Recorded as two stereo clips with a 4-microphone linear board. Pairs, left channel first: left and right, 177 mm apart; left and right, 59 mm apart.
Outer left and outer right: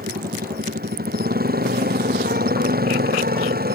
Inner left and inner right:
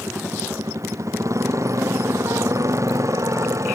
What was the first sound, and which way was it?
A motorcycle, 60° right (ahead or behind).